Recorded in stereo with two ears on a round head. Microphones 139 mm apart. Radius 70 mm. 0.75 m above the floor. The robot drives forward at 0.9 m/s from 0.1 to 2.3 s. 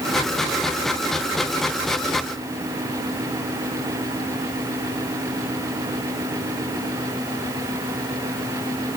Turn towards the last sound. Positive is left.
No sound to turn to.